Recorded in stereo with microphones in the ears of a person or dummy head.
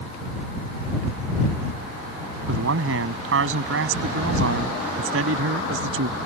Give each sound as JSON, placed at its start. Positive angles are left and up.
{"t": 2.5, "sound": "a man speaking", "side_deg": -80}